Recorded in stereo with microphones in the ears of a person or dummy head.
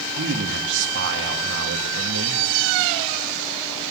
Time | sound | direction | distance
0.2 | a man speaking | 70° right (ahead or behind) | 2 m